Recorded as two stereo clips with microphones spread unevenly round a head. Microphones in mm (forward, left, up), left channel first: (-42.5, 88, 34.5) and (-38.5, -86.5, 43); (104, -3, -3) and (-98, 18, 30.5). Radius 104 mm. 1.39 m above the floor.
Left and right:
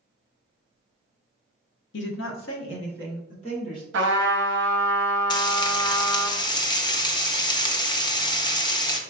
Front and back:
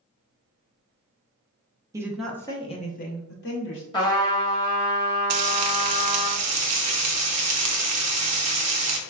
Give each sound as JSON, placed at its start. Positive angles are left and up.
{"t": 1.9, "sound": "a woman speaking", "azimuth_deg": 105, "distance_m": 0.6}
{"t": 3.9, "sound": "a trumpet", "azimuth_deg": -80, "distance_m": 0.6}
{"t": 5.3, "sound": "frying", "azimuth_deg": 160, "distance_m": 0.6}